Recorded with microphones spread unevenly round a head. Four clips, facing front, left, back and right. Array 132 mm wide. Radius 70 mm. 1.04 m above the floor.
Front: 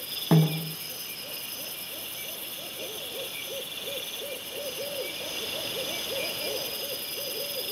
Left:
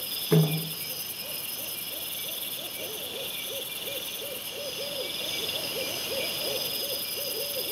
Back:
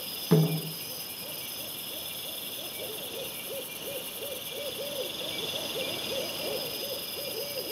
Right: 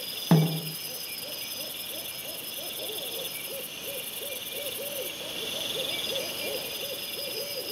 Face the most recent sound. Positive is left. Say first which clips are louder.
# even, front 1 dB
turn(degrees=-60)